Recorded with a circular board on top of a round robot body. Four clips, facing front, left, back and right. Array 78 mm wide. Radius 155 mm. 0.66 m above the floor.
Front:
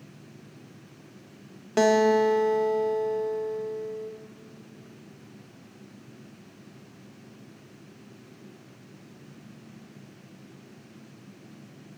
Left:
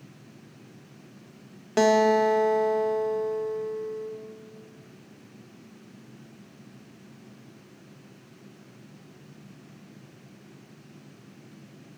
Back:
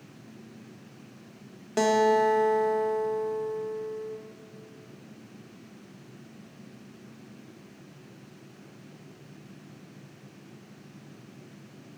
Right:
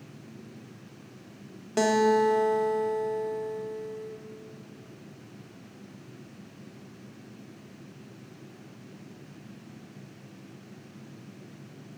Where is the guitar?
60° left, 1.2 m.